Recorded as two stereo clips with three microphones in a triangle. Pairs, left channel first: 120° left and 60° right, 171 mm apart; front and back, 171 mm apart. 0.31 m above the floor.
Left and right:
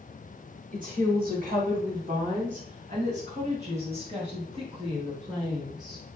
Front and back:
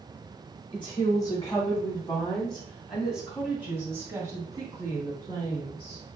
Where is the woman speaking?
55° right, 2.0 m; by 6.0 s 125° right, 3 m.